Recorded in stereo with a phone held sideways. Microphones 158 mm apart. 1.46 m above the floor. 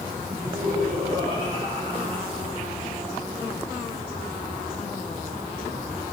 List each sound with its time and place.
0.3 s laughter: 40° right (ahead or behind), 4.5 m